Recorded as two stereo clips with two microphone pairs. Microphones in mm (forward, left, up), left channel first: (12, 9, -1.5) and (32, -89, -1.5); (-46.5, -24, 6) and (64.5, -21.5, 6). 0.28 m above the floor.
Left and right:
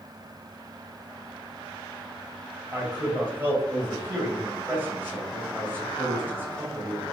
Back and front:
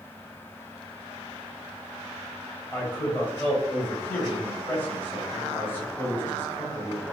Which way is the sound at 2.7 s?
115° right.